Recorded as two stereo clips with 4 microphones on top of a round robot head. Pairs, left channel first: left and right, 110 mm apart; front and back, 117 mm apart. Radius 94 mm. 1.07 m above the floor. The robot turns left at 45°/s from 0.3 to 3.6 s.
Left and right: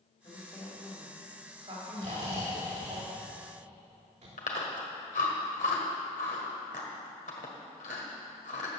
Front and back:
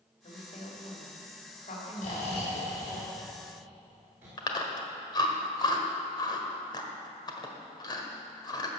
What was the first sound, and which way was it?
A woman speaking, 30° left.